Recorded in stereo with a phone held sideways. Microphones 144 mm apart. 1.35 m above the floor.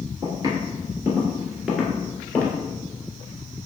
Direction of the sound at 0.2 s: 30° right (ahead or behind).